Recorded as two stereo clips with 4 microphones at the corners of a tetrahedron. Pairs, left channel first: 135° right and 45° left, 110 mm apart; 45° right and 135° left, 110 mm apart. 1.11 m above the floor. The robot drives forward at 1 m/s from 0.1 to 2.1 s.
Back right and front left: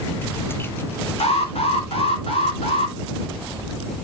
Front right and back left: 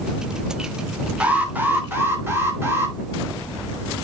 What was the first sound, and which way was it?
An alarm, 145° right.